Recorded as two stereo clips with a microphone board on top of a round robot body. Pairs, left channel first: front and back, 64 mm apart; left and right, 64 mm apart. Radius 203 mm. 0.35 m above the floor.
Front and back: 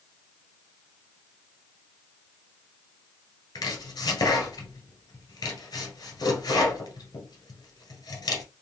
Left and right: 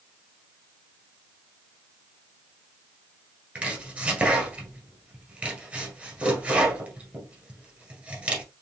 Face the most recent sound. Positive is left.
turn(degrees=-20)